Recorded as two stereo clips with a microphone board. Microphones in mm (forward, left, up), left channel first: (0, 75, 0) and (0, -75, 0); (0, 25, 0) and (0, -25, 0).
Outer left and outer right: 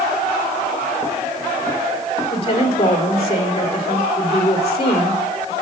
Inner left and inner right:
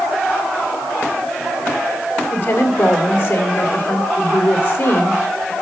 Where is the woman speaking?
40° left (ahead or behind), 1.7 m.